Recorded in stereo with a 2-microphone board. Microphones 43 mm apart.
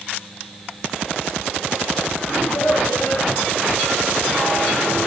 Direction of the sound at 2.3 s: 75° left (ahead or behind).